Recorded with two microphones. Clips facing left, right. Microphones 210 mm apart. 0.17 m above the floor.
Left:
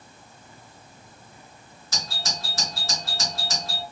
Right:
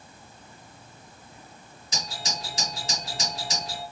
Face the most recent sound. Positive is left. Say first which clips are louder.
# even
turn(degrees=-15)  # may be behind; listen again after turning